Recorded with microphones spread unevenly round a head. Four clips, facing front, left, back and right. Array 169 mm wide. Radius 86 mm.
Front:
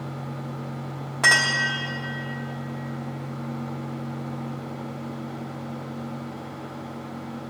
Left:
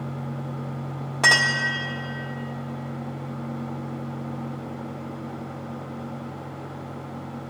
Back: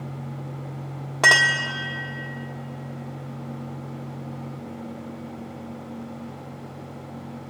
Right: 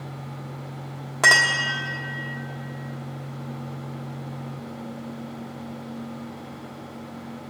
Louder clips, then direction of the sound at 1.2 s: Right 2 dB, back 3 dB; 155° right.